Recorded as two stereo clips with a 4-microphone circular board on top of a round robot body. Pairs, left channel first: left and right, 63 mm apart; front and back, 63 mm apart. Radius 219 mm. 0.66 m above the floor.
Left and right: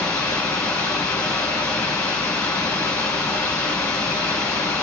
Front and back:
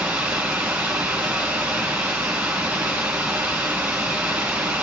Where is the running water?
115° left, 1.7 m.